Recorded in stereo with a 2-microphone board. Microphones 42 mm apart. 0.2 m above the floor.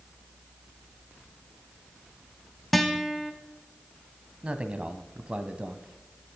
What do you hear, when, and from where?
2.7 s a guitar: centre (ahead or behind), 1.2 m
4.4 s a man speaking: 25° right (ahead or behind), 1.3 m